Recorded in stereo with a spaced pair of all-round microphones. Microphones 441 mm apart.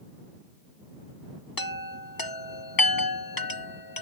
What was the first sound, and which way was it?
A chime, 50° left (ahead or behind).